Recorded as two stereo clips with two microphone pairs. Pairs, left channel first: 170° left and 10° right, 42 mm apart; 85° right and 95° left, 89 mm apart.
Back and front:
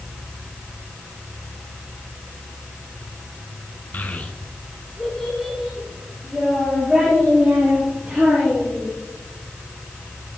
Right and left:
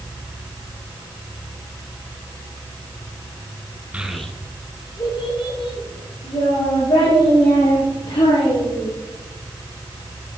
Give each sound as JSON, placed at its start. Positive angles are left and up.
{"t": 3.9, "sound": "a child speaking", "azimuth_deg": 165, "distance_m": 0.9}